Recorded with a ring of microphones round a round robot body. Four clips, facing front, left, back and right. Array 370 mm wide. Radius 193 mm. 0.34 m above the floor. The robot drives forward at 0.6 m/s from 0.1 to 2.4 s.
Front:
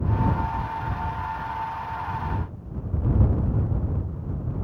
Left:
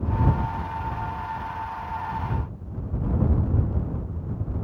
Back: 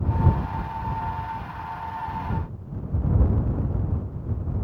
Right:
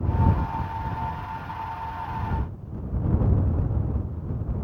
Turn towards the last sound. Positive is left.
No sound to turn to.